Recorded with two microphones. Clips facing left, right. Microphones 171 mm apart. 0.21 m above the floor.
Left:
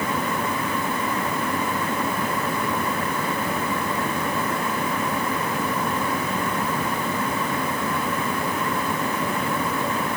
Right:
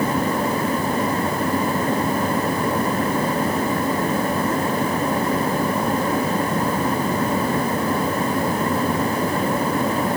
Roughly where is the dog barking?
No dog barking in this recording.